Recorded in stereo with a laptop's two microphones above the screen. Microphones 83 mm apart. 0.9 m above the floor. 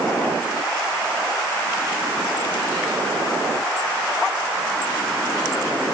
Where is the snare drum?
No snare drum in this recording.